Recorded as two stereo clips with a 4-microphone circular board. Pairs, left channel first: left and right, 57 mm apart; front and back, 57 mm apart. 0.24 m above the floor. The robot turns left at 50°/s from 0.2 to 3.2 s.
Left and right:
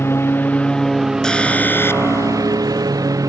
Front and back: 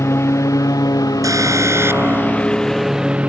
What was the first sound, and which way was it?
A lawn mower, 40° left.